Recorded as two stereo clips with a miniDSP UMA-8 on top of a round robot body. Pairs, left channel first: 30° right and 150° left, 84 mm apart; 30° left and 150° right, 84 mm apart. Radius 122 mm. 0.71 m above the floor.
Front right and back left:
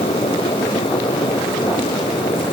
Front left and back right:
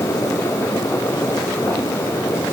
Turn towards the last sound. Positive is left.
No sound to turn to.